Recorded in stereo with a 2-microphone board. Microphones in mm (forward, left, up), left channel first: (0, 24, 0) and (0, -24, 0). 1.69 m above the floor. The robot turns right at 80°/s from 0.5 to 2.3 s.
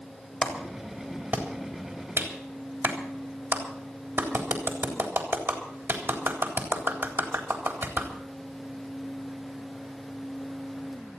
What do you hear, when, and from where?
0.4 s a clap: 30° left (ahead or behind), 3.5 m; by 8.1 s 65° right (ahead or behind), 3.5 m